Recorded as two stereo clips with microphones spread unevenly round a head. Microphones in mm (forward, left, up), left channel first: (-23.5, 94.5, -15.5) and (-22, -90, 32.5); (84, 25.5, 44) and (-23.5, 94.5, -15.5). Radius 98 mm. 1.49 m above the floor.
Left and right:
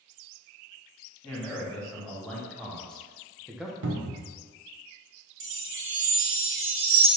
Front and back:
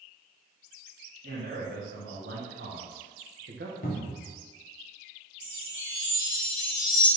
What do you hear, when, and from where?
1.2 s a man speaking: straight behind, 1.7 m; by 3.7 s 165° right, 0.6 m
3.8 s a cupboard door: 65° right, 0.7 m
5.4 s a chime: 75° right, 1.1 m